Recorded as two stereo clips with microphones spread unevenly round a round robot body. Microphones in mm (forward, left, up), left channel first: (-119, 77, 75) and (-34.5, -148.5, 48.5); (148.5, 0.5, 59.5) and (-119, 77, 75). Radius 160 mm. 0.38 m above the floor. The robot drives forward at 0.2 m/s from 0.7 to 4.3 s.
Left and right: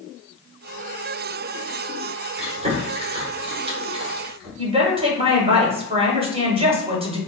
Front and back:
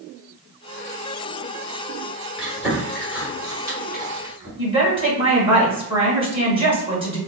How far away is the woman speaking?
About 1.6 m.